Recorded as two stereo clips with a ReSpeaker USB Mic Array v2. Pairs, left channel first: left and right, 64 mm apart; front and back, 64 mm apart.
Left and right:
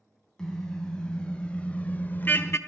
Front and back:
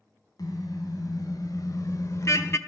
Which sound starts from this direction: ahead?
A car horn, at 0.4 s.